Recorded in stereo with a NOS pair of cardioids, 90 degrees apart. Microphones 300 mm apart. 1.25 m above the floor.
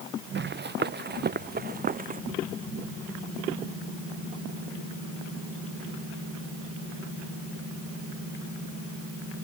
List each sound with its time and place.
0.3 s running footsteps: 35° right; by 2.2 s 30° right